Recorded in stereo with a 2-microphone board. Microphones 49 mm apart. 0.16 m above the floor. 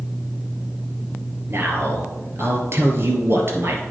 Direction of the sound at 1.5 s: 50° right (ahead or behind).